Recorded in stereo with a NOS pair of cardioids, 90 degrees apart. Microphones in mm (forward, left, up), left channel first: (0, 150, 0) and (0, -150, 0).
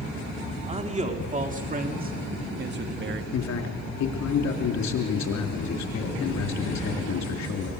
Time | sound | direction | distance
0.7 | a man speaking | 20° right | 3 m
3.3 | a man speaking | 65° left | 3.5 m